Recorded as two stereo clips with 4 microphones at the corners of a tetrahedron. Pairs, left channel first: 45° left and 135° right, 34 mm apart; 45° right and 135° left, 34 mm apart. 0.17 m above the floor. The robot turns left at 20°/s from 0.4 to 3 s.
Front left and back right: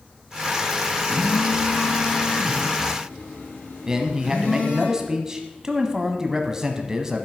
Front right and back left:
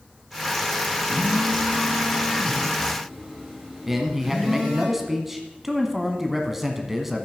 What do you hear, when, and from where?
1.1 s a phone buzzing: 85° left, 5 m; by 4.9 s 50° left, 5 m
3.9 s a man speaking: 155° right, 1.1 m